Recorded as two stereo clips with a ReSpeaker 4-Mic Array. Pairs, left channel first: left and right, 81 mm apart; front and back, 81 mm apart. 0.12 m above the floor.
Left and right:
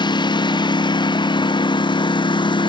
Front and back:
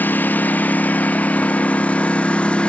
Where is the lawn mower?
70° left; by 2.7 s 75° left.